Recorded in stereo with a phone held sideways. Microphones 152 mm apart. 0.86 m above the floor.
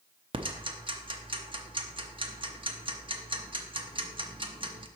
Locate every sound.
0.3 s ticking: 35° right (ahead or behind), 0.7 m